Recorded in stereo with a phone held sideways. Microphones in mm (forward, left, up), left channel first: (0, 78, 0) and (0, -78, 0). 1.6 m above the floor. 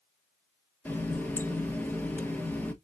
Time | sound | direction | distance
0.8 | a running tap | 10° left (ahead or behind) | 1.0 m